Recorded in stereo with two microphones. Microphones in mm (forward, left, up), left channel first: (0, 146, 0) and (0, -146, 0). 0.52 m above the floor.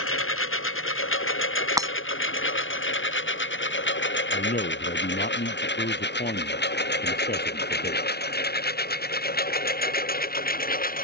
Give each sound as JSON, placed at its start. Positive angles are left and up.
{"t": 0.0, "sound": "a lawn mower", "side_deg": 45}
{"t": 1.8, "sound": "breaking glass", "side_deg": -10}
{"t": 4.3, "sound": "a man speaking", "side_deg": 30}